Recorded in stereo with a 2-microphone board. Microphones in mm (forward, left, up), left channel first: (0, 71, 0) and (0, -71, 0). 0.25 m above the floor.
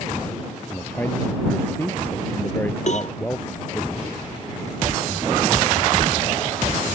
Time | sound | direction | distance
0.7 | a man speaking | 15° left (ahead or behind) | ?
2.9 | a cowbell | 55° left (ahead or behind) | ?